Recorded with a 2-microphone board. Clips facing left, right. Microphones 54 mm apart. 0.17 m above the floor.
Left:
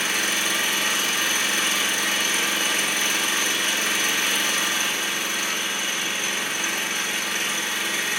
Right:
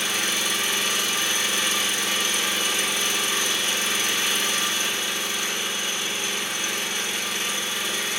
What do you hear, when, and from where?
0.0 s an engine running: 60° left (ahead or behind), 2 m